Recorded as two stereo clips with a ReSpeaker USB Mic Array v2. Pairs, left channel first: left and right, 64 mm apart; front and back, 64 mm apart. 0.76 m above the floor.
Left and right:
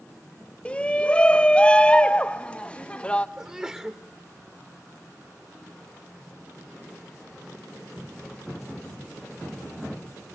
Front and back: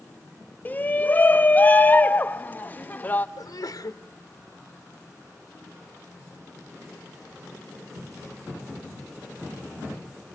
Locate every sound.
0.7 s a shout: 35° left, 0.9 m
3.4 s a sneeze: 15° right, 1.2 m